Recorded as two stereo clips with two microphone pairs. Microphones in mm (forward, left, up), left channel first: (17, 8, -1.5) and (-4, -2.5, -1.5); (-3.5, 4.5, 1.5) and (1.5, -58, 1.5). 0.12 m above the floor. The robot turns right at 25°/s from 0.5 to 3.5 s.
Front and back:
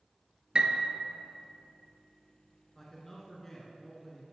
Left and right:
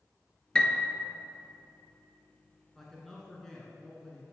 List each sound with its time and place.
0.6 s a piano: 170° left, 0.7 m; by 0.9 s 175° left, 0.7 m
2.8 s a man speaking: 10° left, 1.2 m; by 4.2 s 25° left, 1.2 m